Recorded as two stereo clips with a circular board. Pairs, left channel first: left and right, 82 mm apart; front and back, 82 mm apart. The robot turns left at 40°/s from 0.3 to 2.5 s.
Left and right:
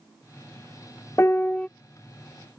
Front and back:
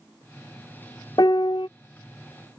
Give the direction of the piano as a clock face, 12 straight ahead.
11 o'clock.